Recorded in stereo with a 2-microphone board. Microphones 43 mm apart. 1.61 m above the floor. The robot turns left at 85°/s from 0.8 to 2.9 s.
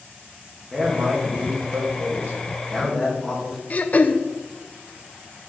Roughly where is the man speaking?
Ahead.